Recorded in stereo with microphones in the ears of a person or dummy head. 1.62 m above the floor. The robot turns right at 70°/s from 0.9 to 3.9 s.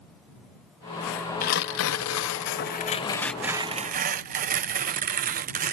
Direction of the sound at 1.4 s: 45° left.